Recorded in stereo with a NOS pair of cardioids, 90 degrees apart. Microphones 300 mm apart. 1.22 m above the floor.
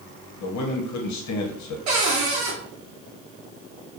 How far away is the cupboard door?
About 0.9 m.